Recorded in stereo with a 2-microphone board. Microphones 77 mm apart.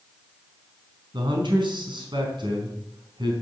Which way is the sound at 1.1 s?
80° right.